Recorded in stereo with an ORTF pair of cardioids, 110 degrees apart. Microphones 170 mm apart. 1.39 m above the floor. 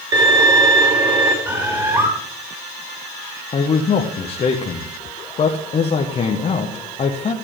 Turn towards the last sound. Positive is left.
turn(degrees=40)